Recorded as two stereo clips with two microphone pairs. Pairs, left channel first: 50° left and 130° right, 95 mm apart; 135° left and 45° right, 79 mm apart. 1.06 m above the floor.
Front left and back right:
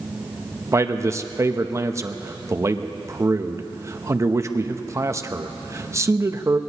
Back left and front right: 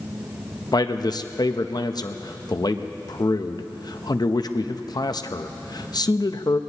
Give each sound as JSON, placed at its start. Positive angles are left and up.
{"t": 0.7, "sound": "a man speaking", "azimuth_deg": 170, "distance_m": 0.8}